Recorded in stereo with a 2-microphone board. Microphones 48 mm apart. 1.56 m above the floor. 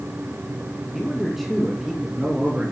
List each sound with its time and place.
0.9 s a man speaking: 5° left (ahead or behind), 2.5 m; by 2.7 s 20° right (ahead or behind), 3 m